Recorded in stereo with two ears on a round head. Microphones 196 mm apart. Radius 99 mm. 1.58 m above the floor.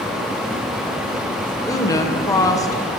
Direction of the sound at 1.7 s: 15° left (ahead or behind).